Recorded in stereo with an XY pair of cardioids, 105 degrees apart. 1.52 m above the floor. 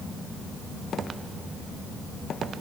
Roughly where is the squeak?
No squeak in this recording.